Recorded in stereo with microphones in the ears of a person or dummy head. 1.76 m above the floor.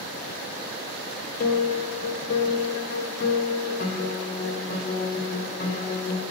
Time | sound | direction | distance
1.4 | a piano | 45° left (ahead or behind) | 0.9 m